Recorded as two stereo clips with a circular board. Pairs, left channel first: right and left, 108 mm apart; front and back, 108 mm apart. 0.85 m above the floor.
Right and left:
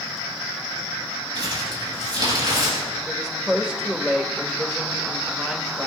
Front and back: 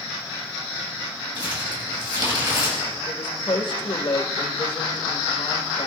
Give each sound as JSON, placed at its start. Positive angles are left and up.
{"t": 1.4, "sound": "crumpling", "azimuth_deg": 135, "distance_m": 5.5}
{"t": 3.1, "sound": "a woman speaking", "azimuth_deg": 10, "distance_m": 1.4}